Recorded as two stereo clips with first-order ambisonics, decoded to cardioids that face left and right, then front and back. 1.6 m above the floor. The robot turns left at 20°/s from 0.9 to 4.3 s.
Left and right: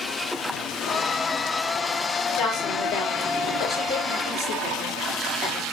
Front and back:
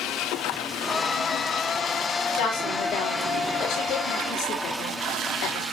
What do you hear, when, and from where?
2.4 s a woman speaking: 10° left, 6.5 m; by 5.6 s 30° right, 6.5 m